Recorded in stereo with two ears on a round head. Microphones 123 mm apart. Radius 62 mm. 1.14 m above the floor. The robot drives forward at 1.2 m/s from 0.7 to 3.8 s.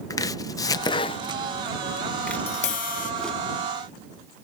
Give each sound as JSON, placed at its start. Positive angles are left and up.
{"t": 0.1, "sound": "chopping", "side_deg": 25}
{"t": 2.3, "sound": "tapping", "side_deg": 40}